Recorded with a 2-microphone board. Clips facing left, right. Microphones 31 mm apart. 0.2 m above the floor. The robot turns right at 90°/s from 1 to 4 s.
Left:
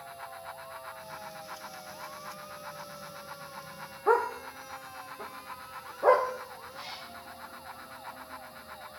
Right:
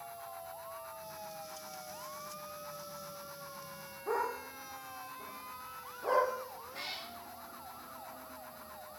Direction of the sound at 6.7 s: 55° right (ahead or behind).